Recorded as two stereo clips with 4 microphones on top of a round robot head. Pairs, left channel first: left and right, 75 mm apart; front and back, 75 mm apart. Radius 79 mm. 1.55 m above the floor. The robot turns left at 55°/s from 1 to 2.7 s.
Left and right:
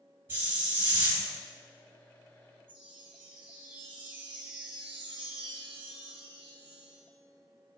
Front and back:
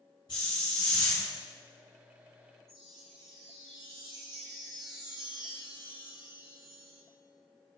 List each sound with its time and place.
0.3 s a hiss: 35° right, 1.6 m; by 1.3 s 50° right, 1.6 m
2.7 s a chime: 90° right, 1.1 m; by 7.0 s 95° right, 1.1 m